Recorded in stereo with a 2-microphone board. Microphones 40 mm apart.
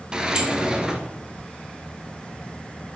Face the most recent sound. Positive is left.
turn(degrees=-20)  # may be behind; listen again after turning